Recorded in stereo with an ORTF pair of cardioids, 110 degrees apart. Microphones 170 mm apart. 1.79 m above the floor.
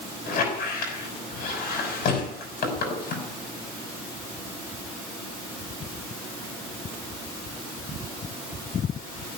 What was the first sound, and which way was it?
A squeak, 65° left.